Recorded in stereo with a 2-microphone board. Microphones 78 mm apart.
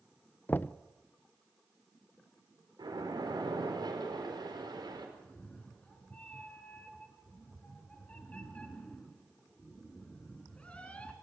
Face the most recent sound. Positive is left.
turn(degrees=15)  # may be behind; listen again after turning